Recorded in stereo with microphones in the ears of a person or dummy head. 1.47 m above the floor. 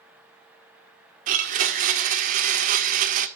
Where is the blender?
45° right (ahead or behind), 1.6 m.